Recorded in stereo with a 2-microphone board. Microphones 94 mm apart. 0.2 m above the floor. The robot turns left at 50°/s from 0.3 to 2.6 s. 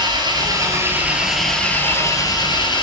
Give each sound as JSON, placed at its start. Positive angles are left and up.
{"t": 0.0, "sound": "an engine running", "azimuth_deg": -125, "distance_m": 1.1}